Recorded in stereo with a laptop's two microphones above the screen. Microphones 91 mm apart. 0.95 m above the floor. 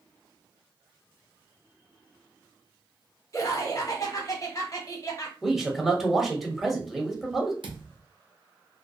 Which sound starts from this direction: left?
Laughter, at 3.3 s.